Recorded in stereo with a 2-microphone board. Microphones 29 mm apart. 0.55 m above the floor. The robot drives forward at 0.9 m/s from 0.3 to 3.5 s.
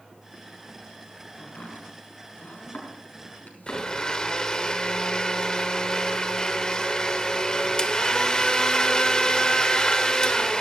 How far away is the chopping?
About 5.5 m.